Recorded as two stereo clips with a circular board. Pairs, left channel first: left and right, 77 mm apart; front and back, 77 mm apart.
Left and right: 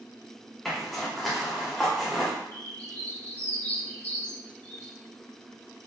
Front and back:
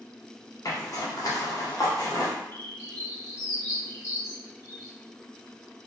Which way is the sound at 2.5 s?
30° left.